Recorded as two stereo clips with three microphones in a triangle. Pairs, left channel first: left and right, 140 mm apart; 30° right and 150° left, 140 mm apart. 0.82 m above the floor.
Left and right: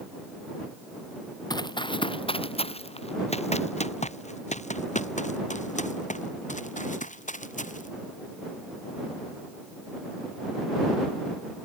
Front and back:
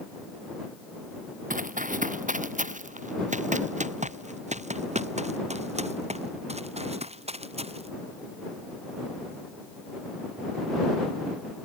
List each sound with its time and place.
1.5 s running footsteps: 145° left; by 7.9 s 110° left